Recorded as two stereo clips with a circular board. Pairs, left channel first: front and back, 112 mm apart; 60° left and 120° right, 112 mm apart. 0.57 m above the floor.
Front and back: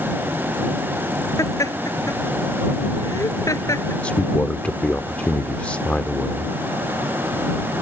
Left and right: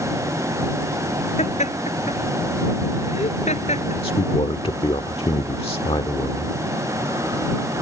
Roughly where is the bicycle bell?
I don't hear a bicycle bell.